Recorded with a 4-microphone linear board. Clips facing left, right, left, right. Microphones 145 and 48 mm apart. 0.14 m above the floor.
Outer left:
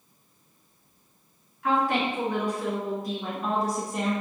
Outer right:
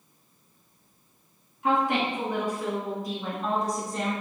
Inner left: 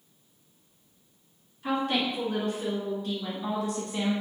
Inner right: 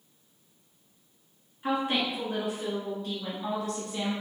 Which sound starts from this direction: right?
A woman speaking, at 1.6 s.